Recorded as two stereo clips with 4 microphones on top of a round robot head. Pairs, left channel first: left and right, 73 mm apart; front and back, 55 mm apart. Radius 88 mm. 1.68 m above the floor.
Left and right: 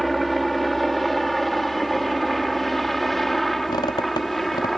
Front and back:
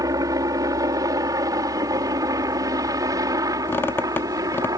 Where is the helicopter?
Straight behind.